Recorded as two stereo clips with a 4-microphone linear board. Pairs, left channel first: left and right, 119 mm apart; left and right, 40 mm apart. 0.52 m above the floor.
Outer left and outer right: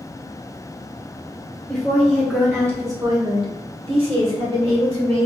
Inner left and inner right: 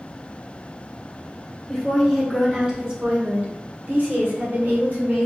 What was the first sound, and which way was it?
A woman speaking, 5° left (ahead or behind).